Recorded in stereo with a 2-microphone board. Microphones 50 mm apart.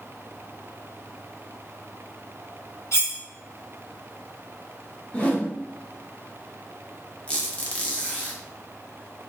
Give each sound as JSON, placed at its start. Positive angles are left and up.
{"t": 2.9, "sound": "cutlery clinking", "side_deg": 70, "distance_m": 1.6}
{"t": 5.1, "sound": "a whoosh", "side_deg": 30, "distance_m": 0.6}
{"t": 7.3, "sound": "a squeak", "side_deg": 20, "distance_m": 0.6}